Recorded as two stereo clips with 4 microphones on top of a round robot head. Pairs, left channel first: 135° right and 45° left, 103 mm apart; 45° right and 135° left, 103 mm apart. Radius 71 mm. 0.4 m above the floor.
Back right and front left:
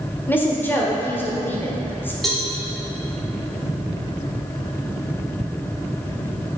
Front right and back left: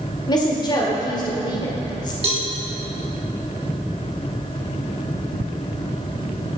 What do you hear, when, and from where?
0.3 s a woman speaking: 70° right, 1.5 m
2.2 s a cowbell: 135° left, 1.8 m